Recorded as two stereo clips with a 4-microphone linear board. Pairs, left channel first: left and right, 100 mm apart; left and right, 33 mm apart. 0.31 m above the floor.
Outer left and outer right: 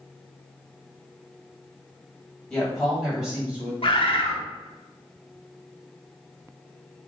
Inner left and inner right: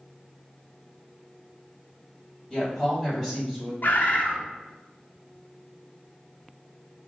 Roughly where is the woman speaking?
Centre.